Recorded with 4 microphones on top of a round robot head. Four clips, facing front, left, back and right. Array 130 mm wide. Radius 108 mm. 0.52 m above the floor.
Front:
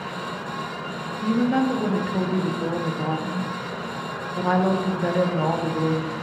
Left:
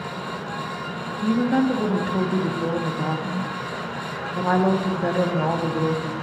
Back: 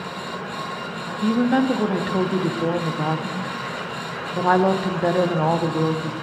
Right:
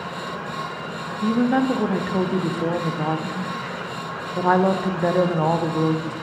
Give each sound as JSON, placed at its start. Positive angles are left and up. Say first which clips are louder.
{"t": 1.2, "sound": "a woman speaking", "louder": "right 1 dB, back 2 dB", "azimuth_deg": -145, "distance_m": 0.7}